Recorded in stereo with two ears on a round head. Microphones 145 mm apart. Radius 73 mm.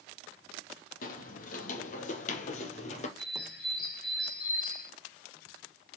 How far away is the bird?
About 3 m.